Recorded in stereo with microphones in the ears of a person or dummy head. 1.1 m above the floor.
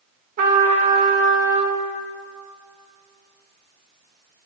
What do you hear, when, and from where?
0.4 s a trumpet: 55° right (ahead or behind), 1.0 m